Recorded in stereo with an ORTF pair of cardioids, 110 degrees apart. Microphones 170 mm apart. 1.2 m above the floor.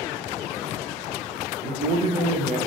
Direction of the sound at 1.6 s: 40° right.